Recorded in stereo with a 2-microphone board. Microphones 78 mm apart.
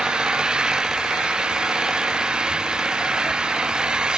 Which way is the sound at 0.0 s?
10° right (ahead or behind).